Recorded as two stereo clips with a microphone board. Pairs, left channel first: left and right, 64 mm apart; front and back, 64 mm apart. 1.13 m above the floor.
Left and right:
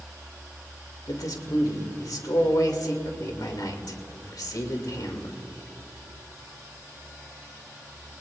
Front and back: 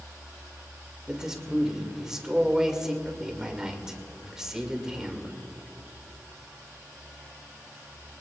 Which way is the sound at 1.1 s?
100° left.